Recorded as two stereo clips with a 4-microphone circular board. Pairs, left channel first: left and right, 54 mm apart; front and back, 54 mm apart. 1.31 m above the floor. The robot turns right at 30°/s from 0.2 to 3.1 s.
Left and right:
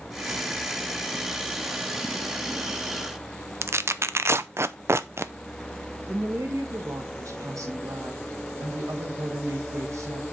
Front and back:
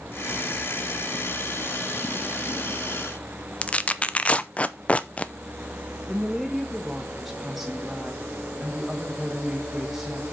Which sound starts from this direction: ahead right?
Tearing paper, at 3.6 s.